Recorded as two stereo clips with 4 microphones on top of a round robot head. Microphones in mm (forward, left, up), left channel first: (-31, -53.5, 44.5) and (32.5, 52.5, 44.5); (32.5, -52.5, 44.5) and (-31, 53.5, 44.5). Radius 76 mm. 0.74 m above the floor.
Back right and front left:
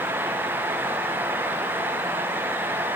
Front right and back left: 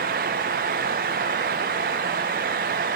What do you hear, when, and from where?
Only background noise.